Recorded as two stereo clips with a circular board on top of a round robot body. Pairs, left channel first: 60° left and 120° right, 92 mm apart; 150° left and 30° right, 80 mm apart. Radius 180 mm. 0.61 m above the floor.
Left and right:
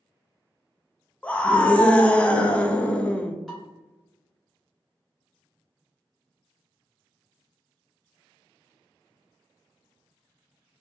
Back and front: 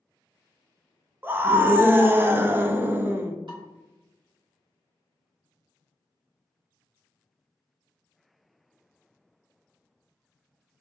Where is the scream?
5° right, 0.6 m.